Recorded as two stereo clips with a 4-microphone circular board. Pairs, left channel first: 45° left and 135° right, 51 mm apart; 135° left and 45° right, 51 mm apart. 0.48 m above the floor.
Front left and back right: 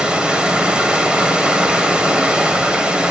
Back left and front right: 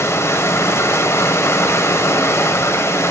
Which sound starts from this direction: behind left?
Running water, at 0.0 s.